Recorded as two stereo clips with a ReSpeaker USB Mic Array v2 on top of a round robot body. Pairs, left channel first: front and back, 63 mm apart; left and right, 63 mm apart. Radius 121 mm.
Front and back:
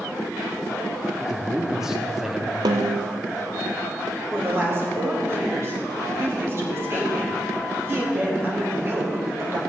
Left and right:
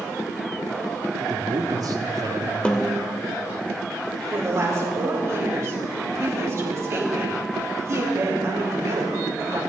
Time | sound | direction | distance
1.2 | a man speaking | 100° right | 1.6 m
2.6 | a snare drum | 165° left | 0.6 m
4.3 | a woman speaking | 135° right | 3.5 m